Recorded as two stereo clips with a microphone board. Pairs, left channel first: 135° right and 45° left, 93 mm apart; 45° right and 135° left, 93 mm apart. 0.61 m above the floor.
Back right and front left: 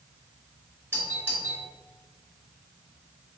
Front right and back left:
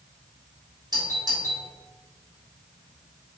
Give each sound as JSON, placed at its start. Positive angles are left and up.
{"t": 0.9, "sound": "a doorbell", "azimuth_deg": 105, "distance_m": 3.0}